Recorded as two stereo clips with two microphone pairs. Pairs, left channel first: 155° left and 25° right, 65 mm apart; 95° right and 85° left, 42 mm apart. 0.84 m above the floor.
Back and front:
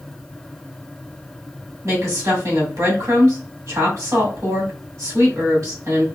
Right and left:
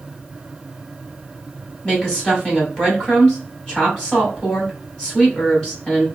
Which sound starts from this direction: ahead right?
A woman speaking, at 1.8 s.